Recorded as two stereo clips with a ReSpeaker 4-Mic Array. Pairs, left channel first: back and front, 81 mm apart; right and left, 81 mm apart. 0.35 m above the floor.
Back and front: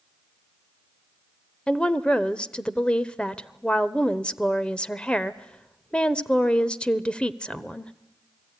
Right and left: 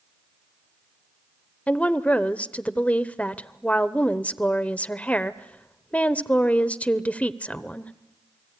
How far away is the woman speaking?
About 0.9 m.